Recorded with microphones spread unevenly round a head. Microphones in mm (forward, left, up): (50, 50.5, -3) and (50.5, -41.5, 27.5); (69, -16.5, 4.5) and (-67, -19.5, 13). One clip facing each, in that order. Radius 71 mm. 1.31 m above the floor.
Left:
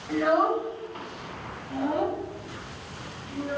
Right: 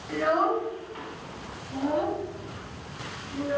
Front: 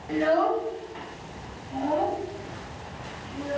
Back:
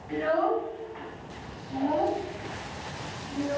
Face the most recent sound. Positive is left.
turn(degrees=110)